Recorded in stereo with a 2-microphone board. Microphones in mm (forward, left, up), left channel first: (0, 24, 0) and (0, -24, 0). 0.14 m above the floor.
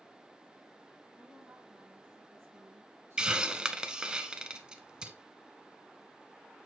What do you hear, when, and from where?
1.2 s a woman speaking: 35° right (ahead or behind), 4 m; by 4.2 s 60° right (ahead or behind), 4 m
3.2 s a hiss: 20° right (ahead or behind), 0.5 m